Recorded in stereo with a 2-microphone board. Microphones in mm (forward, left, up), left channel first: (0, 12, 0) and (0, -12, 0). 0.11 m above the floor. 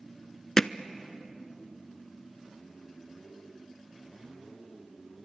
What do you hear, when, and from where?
0.6 s hammering: 25° left (ahead or behind), 0.7 m